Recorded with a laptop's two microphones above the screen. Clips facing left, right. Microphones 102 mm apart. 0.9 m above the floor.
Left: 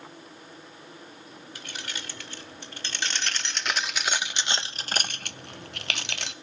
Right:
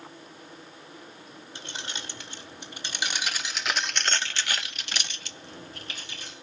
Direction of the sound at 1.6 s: 25° right (ahead or behind).